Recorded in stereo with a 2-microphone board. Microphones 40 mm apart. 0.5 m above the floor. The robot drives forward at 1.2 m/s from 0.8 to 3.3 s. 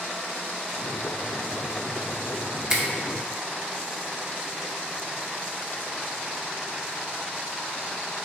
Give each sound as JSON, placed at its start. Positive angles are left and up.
{"t": 2.7, "sound": "a finger snap", "side_deg": -15, "distance_m": 0.6}